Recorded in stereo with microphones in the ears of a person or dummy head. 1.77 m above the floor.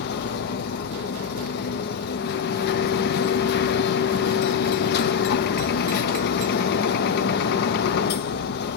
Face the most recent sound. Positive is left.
turn(degrees=60)  # may be behind; listen again after turning